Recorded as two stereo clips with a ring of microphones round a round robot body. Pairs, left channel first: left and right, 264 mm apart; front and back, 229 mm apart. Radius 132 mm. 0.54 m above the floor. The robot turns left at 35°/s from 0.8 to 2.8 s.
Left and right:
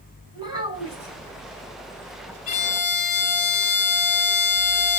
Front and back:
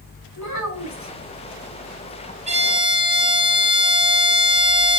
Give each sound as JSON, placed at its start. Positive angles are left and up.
{"t": 0.3, "sound": "a child speaking", "azimuth_deg": -15, "distance_m": 4.0}
{"t": 2.5, "sound": "a violin", "azimuth_deg": 135, "distance_m": 1.7}